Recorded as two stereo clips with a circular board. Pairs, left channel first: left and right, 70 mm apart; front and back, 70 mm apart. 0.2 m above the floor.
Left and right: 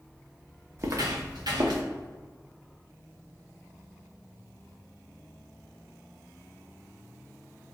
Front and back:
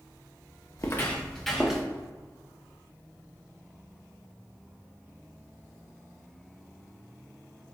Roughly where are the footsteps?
Ahead right.